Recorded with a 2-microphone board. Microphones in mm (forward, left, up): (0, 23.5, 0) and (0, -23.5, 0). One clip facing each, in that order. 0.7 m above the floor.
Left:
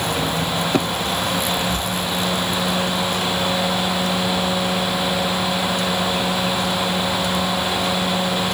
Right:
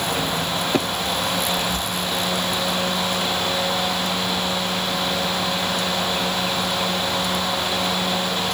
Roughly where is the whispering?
Centre.